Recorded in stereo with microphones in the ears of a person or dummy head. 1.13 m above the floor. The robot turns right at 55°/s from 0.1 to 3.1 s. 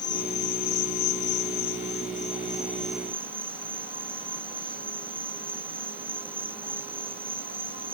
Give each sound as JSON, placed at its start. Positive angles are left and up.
{"t": 0.0, "sound": "an insect", "azimuth_deg": 25}